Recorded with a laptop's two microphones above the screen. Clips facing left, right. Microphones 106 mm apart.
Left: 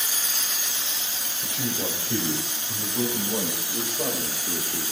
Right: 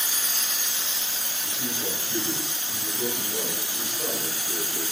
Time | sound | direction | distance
1.4 | a man speaking | 70° left (ahead or behind) | 6 m